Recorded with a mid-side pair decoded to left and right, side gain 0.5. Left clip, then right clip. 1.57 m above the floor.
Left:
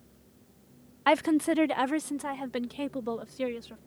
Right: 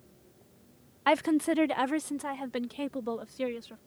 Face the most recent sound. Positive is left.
turn(degrees=5)